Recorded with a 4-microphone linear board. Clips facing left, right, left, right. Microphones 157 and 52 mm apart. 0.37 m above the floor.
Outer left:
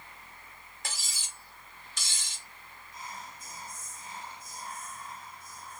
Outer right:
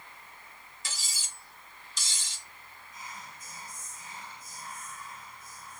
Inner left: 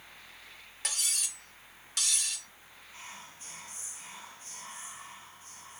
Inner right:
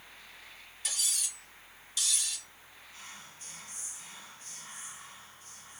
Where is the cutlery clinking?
60° left (ahead or behind), 1.1 m.